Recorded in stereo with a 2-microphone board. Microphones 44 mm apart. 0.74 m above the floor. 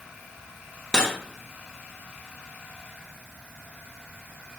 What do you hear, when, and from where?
0.9 s cutlery clinking: 15° left (ahead or behind), 0.9 m